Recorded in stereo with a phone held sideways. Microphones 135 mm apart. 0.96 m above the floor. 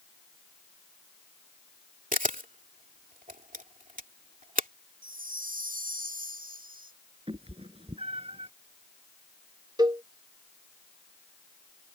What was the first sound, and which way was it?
A camera shutter, 75° right (ahead or behind).